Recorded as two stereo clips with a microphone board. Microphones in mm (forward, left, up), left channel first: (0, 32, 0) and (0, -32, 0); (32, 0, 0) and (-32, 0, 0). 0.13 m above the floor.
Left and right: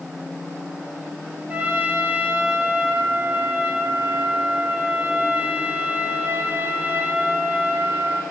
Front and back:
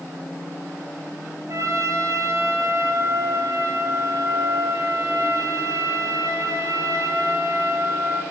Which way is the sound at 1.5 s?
155° right.